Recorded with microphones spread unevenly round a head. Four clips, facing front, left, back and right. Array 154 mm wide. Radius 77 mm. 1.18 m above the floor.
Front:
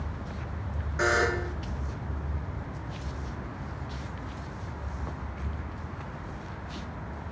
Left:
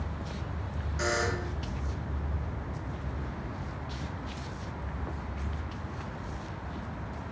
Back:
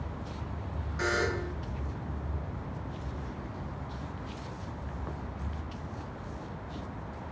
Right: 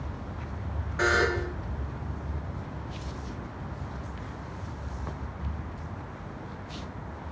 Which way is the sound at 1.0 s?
30° right.